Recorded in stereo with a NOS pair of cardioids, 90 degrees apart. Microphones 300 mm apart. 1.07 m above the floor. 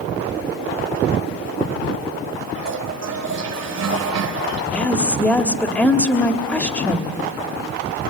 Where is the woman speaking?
5° left, 2.0 m.